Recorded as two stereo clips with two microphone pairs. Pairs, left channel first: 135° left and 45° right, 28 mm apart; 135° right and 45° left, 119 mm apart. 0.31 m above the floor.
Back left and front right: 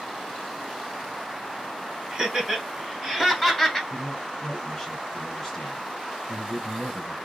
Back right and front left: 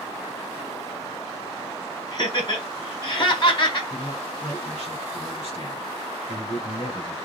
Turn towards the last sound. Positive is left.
turn(degrees=-145)